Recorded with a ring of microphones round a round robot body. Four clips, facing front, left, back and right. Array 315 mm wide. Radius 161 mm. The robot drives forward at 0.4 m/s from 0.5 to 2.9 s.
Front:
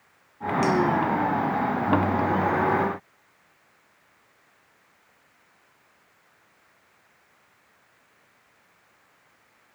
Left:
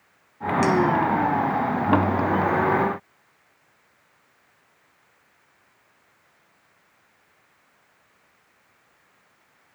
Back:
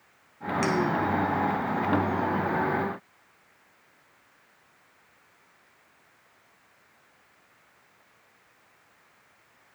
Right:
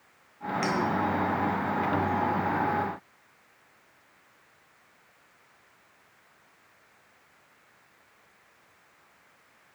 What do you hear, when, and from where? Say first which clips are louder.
0.6 s a clink: left 8 dB, front 4 dB; 110° left, 2.0 m; by 0.8 s 115° left, 2 m